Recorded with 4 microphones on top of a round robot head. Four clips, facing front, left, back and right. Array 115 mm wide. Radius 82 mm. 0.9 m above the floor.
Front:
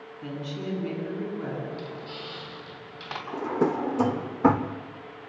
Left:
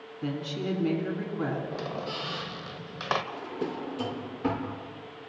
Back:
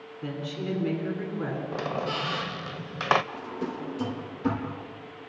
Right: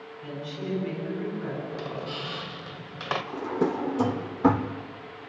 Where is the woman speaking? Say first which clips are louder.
Left 3 dB, back 1 dB; 90° left, 8 m.